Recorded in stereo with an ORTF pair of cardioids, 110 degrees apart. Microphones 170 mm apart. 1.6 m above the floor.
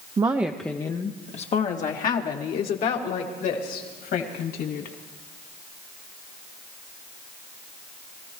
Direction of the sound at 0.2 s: 25° right.